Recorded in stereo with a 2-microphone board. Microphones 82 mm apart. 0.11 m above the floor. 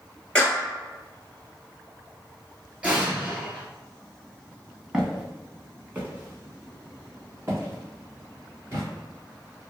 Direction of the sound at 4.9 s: 10° right (ahead or behind).